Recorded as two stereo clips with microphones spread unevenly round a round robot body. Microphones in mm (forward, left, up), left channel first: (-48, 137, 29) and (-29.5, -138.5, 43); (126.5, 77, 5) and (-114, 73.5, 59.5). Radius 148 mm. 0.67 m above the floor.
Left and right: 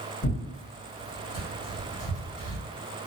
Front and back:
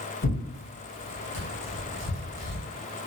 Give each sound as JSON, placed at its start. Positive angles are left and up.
{"t": 0.2, "sound": "tearing paper", "azimuth_deg": 40, "distance_m": 1.9}